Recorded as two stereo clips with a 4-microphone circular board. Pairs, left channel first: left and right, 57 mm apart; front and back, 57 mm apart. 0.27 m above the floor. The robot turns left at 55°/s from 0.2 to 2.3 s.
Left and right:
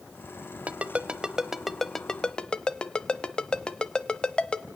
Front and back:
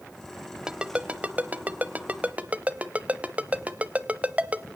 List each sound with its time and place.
0.7 s a ringtone: 120° right, 0.8 m; by 4.7 s 150° left, 0.8 m